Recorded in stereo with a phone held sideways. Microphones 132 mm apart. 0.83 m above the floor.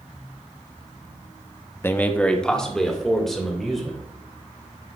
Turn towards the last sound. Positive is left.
turn(degrees=0)  # may be behind; listen again after turning